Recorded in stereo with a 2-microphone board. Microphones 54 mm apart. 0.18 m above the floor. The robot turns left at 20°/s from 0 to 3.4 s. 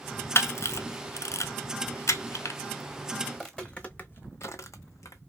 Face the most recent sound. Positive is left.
turn(degrees=80)